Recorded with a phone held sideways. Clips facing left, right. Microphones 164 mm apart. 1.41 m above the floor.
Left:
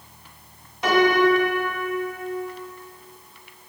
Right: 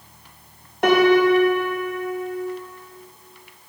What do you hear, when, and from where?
0.8 s a piano: 55° right (ahead or behind), 1.0 m